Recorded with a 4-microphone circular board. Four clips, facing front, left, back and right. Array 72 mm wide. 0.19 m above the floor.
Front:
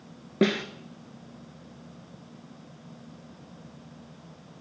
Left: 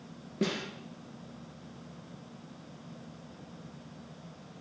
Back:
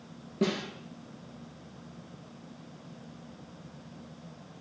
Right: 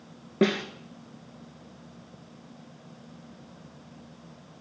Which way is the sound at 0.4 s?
40° right.